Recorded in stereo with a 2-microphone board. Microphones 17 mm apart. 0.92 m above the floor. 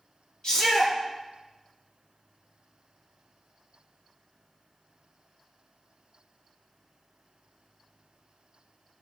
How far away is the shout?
About 2.5 m.